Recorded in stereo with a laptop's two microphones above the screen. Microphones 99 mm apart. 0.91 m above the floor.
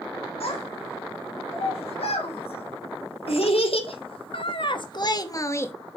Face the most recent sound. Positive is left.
turn(degrees=20)  # may be behind; listen again after turning